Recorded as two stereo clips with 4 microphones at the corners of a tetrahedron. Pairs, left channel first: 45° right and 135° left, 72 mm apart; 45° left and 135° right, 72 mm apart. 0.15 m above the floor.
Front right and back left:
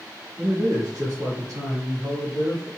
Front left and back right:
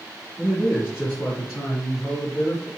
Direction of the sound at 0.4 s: 120° left.